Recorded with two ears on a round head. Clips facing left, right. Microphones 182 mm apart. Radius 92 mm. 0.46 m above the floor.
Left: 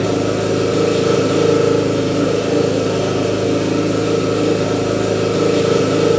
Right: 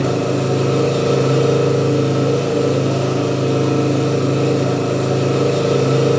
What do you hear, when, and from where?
0.0 s an engine running: 5° left (ahead or behind), 5 m